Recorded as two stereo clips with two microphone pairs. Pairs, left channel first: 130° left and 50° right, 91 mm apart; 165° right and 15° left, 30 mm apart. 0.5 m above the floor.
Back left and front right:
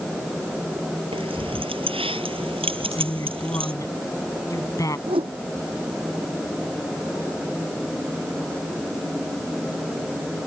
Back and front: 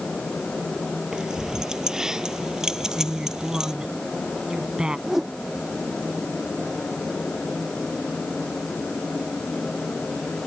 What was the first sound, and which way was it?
Keys jangling, 55° right.